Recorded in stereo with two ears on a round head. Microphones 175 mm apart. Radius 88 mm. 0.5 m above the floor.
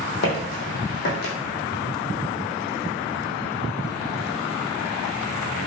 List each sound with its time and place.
0.2 s footsteps: 60° left (ahead or behind), 1.0 m